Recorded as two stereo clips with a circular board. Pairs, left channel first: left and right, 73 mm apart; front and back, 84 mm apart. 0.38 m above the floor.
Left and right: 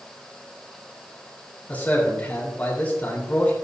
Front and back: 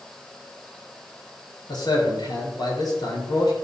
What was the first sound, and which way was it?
A man speaking, 20° left.